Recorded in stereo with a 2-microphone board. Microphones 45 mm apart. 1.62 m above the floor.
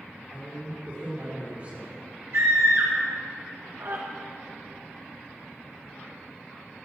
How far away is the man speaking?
About 5 m.